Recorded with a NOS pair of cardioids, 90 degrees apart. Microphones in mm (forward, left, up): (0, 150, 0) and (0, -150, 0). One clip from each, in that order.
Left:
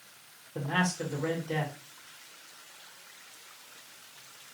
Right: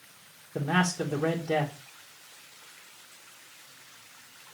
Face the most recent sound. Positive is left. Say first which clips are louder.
# right 3 dB
turn(degrees=-65)